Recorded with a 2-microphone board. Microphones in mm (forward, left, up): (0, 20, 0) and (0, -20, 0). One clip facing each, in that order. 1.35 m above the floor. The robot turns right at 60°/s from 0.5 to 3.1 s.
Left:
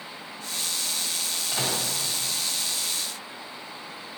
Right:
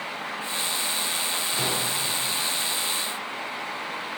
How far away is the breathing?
I don't hear breathing.